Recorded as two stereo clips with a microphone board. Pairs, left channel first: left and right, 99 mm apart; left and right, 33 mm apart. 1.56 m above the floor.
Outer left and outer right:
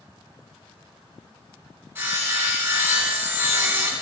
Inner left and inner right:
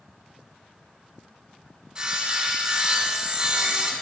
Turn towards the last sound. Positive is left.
turn(degrees=-20)  # may be behind; listen again after turning